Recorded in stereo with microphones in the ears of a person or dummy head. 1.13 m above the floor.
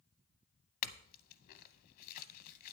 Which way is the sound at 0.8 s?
55° left (ahead or behind).